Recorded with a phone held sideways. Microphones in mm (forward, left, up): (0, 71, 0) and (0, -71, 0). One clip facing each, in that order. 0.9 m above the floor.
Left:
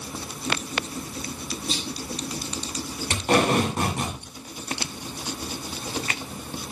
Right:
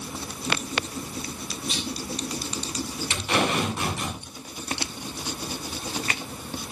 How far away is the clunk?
About 9 m.